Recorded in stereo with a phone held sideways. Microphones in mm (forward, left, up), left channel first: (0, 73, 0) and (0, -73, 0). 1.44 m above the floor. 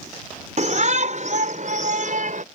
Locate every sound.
0.6 s a shout: 55° right (ahead or behind); by 2.4 s 60° right (ahead or behind)